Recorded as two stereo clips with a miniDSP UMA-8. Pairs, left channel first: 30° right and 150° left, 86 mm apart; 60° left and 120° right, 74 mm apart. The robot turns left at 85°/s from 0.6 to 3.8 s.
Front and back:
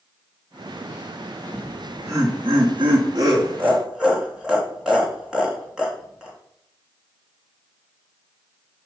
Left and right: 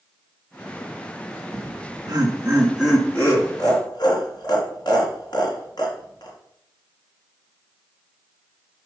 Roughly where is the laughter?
Right.